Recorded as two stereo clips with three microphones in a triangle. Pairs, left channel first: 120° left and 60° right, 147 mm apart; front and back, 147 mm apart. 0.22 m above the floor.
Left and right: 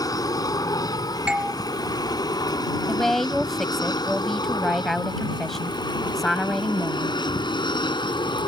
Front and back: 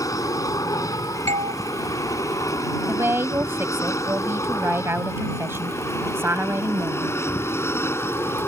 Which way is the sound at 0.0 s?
60° left.